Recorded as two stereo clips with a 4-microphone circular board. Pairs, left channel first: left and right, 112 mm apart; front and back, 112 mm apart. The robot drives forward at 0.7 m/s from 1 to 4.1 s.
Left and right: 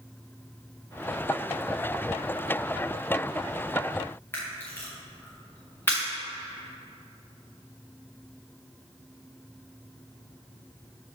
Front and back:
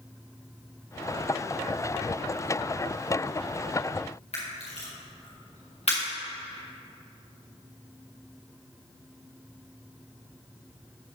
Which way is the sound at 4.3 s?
20° left.